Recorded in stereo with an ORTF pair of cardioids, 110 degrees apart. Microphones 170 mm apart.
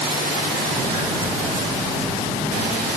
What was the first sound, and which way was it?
Footsteps, 30° right.